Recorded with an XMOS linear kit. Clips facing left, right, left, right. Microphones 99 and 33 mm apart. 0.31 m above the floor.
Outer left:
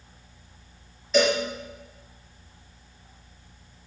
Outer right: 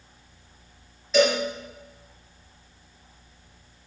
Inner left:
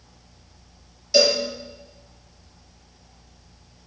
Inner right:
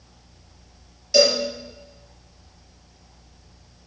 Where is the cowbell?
Centre (ahead or behind), 5 m.